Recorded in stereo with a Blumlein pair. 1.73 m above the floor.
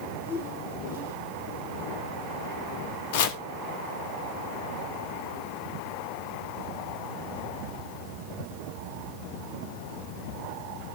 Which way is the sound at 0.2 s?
65° left.